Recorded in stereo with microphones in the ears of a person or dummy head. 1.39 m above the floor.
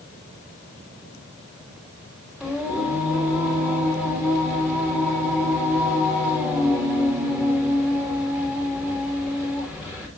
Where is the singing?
Centre (ahead or behind), 3 m.